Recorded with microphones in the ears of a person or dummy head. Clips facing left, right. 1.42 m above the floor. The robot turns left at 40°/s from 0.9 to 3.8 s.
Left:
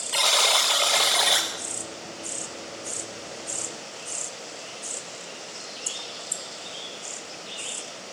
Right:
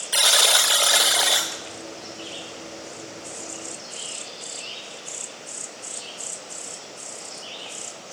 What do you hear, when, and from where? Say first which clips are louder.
0.1 s a buzzer: right 1 dB; 10° right (ahead or behind), 0.8 m; by 1.5 s 5° left (ahead or behind), 0.8 m